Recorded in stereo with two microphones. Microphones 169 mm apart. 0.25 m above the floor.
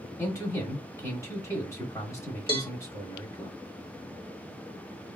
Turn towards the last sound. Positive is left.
turn(degrees=-35)  # may be behind; listen again after turning